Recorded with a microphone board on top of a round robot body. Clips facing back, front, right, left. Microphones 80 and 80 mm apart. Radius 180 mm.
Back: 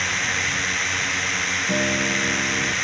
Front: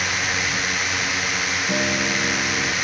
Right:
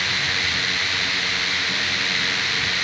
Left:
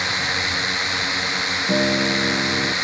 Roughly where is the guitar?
Left.